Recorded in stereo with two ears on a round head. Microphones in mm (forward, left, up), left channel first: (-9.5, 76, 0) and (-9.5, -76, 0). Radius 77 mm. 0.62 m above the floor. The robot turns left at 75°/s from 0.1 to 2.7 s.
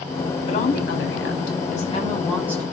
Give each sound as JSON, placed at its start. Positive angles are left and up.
{"t": 0.5, "sound": "a woman speaking", "azimuth_deg": 140, "distance_m": 5.0}